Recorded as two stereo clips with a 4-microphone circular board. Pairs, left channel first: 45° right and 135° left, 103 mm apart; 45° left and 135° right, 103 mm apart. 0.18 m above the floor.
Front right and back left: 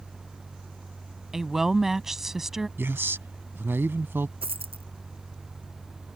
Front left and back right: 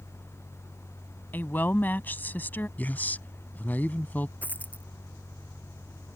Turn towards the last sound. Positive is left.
turn(degrees=120)